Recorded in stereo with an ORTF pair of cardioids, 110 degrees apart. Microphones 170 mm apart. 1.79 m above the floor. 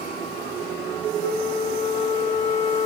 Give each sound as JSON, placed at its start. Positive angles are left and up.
{"t": 1.2, "sound": "a flute", "azimuth_deg": 45, "distance_m": 1.3}